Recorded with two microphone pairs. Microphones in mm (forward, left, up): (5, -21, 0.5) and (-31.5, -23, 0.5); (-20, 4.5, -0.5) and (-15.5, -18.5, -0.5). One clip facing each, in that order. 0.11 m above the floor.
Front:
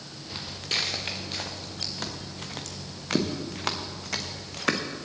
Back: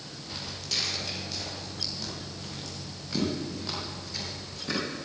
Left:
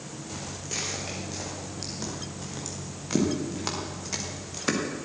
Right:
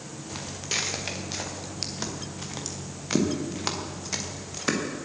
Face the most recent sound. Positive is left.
turn(degrees=10)